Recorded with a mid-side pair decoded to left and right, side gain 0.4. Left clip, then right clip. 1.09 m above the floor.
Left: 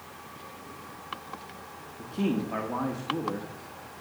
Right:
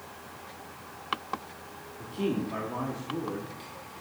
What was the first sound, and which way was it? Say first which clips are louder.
A man speaking: even; 55° left.